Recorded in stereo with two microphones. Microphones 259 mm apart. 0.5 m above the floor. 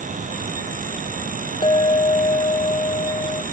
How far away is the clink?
About 0.7 m.